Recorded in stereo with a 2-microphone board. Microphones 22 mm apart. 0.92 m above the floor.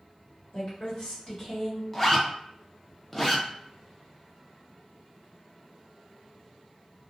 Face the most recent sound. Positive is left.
turn(degrees=15)  # may be behind; listen again after turning